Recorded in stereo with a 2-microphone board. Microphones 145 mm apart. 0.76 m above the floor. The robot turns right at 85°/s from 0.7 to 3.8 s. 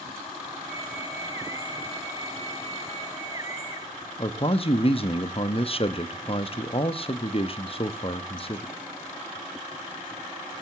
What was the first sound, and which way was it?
A man speaking, 40° left (ahead or behind).